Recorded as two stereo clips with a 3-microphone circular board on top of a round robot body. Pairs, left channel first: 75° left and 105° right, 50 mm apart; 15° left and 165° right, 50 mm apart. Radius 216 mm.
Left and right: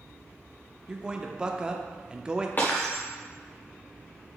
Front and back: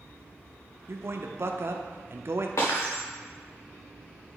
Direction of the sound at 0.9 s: 175° right.